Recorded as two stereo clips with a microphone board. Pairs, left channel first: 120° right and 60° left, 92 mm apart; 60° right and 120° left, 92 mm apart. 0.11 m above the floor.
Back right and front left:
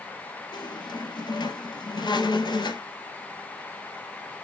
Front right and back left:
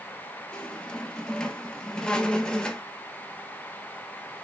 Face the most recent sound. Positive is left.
turn(degrees=-140)